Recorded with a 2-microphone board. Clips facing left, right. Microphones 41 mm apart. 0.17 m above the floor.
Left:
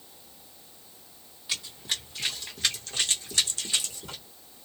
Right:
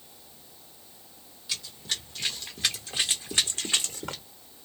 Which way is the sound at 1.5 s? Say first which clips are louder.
Left 1 dB; 20° left (ahead or behind).